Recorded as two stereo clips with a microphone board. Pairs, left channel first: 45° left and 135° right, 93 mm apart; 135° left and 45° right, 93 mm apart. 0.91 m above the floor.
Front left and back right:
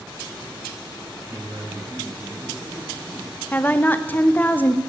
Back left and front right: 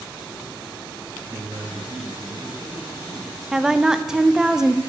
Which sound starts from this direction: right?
A man speaking, at 1.2 s.